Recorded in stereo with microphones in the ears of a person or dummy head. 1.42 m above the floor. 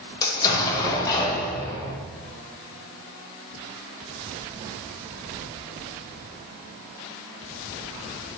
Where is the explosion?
20° left (ahead or behind), 0.6 m.